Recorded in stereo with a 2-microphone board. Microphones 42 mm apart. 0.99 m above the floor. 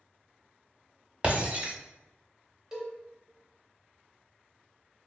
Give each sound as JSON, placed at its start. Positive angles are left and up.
{"t": 1.2, "sound": "breaking glass", "side_deg": -30, "distance_m": 0.6}
{"t": 2.7, "sound": "a cowbell", "side_deg": -15, "distance_m": 0.9}